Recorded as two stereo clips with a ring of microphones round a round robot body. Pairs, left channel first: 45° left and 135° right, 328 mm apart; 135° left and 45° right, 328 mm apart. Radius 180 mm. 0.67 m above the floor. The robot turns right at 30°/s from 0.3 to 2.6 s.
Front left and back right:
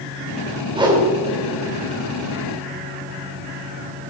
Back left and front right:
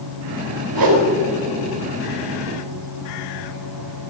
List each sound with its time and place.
0.7 s a whoosh: 60° right, 3 m; by 1.1 s 50° right, 3 m